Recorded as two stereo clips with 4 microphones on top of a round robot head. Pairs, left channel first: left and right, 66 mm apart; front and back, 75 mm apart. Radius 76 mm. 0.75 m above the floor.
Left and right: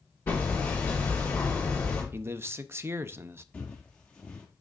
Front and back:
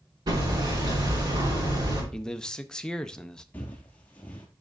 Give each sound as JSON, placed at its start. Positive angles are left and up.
{"t": 0.3, "sound": "hammering", "azimuth_deg": 155, "distance_m": 3.0}
{"t": 2.1, "sound": "a man speaking", "azimuth_deg": -75, "distance_m": 0.5}
{"t": 3.5, "sound": "footsteps", "azimuth_deg": 45, "distance_m": 0.8}